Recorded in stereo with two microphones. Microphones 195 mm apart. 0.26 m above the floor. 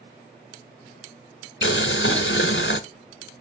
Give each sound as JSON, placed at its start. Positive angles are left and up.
{"t": 1.6, "sound": "boiling", "side_deg": 80, "distance_m": 0.8}